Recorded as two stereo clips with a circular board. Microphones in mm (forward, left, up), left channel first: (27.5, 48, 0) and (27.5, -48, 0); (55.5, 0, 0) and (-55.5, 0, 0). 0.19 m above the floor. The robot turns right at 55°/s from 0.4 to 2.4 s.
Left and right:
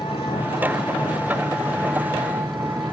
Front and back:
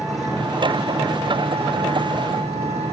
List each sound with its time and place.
0.0 s an engine running: 90° left, 4.5 m; by 2.9 s 160° right, 4.5 m